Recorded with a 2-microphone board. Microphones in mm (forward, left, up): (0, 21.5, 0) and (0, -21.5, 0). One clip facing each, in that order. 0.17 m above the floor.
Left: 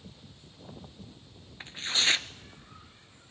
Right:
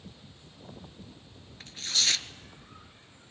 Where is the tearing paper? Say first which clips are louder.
Left 2 dB; 30° left (ahead or behind), 0.7 m.